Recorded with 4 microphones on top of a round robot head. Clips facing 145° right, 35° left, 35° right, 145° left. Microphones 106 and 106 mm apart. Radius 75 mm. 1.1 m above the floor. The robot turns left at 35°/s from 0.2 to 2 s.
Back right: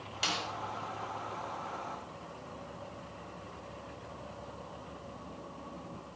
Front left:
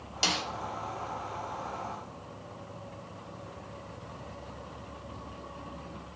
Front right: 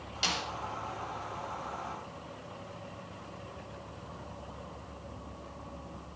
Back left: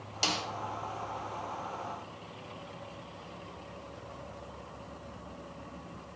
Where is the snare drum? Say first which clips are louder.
Front left 4 dB, back left 2 dB; 95° left, 3 m; by 0.5 s 85° left, 3 m.